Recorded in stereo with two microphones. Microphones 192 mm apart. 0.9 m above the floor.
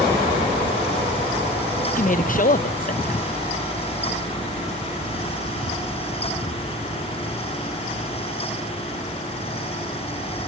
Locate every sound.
2.0 s a woman speaking: 45° left (ahead or behind), 0.5 m